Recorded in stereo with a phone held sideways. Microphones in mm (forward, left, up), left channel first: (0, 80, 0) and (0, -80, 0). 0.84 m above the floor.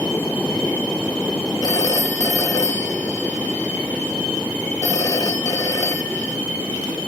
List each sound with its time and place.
0.0 s a fan: 10° left (ahead or behind)
1.6 s a phone ringing: 25° left (ahead or behind)